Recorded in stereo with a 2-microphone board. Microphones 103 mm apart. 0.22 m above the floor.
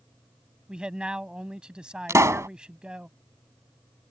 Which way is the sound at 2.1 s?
30° right (ahead or behind).